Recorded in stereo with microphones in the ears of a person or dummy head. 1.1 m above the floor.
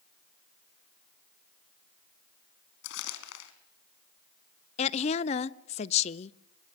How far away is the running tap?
I don't hear a running tap.